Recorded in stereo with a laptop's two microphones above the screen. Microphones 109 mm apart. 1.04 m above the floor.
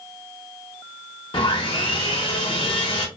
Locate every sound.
1.3 s sawing: 50° left (ahead or behind), 1.0 m